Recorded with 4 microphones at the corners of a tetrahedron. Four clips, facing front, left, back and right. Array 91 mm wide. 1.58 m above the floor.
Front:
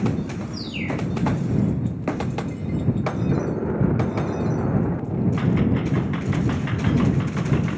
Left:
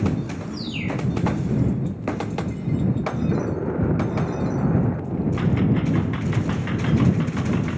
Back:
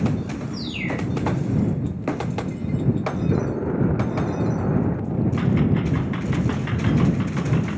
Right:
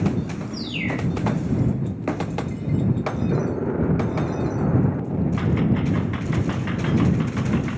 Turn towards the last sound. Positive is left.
turn(degrees=-130)